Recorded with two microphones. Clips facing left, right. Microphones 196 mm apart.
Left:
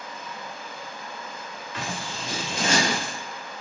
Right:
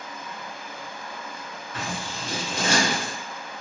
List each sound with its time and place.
0.0 s running water: 55° right (ahead or behind), 1.1 m
1.7 s scissors: 45° right (ahead or behind), 1.8 m